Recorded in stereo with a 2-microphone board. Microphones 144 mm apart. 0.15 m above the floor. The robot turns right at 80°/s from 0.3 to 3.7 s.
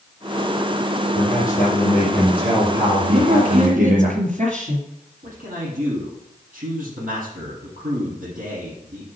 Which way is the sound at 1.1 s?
75° left.